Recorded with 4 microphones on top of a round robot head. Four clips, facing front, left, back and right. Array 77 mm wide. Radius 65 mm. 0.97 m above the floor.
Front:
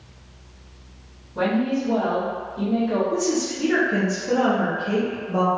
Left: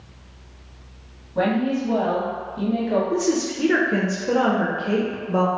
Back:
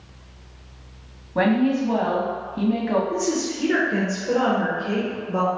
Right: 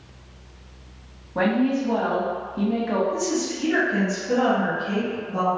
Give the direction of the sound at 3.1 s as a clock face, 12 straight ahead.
9 o'clock.